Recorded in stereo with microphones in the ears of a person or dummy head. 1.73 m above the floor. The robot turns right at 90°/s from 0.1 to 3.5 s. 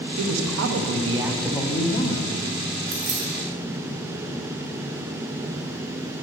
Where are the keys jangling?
35° right (ahead or behind), 2.5 m; by 3.2 s 60° right (ahead or behind), 2.5 m.